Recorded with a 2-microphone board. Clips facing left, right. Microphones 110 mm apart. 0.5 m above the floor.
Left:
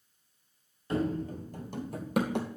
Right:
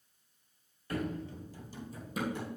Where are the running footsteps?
25° left (ahead or behind), 0.6 m; by 2.5 s 75° left (ahead or behind), 1.4 m.